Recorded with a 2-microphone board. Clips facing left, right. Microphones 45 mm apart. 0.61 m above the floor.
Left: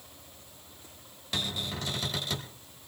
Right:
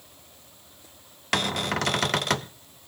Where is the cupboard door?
65° right (ahead or behind), 0.6 m.